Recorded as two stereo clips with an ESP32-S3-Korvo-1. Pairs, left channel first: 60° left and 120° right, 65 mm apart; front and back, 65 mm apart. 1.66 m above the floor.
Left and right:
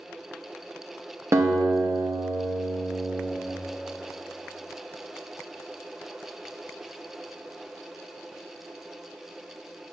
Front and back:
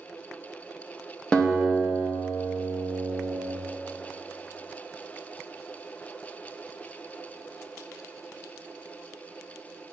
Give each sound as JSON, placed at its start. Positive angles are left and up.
{"t": 1.3, "sound": "a guitar", "azimuth_deg": -80, "distance_m": 0.9}